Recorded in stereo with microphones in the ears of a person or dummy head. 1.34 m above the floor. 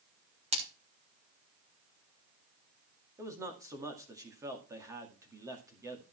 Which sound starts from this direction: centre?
A man speaking, at 3.2 s.